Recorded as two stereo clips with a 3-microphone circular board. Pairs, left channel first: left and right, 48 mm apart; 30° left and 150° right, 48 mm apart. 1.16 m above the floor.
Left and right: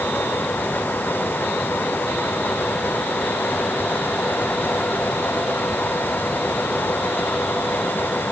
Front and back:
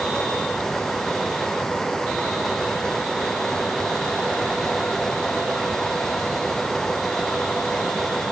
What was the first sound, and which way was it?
Only background noise.